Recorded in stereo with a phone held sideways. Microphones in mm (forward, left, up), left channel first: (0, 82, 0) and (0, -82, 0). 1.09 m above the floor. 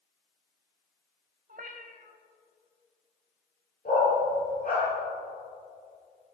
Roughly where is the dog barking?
Left.